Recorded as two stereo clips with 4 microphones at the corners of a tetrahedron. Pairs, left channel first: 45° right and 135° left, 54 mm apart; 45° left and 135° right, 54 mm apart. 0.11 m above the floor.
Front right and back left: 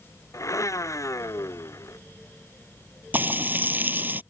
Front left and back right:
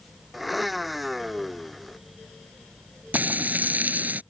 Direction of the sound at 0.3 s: 45° right.